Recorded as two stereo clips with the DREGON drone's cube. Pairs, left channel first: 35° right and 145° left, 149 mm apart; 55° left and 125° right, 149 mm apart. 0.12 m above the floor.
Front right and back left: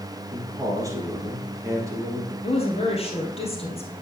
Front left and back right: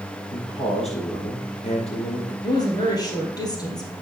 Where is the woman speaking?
Straight ahead, 2 m.